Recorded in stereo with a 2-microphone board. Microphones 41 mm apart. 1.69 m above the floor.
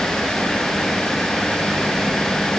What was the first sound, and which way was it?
Only background noise.